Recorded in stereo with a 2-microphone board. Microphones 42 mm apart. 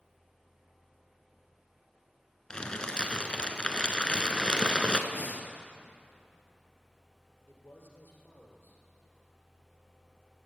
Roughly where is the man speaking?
Left.